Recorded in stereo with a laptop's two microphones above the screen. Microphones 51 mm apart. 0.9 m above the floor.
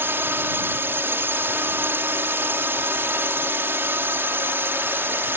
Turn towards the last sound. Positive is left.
turn(degrees=-45)  # may be behind; listen again after turning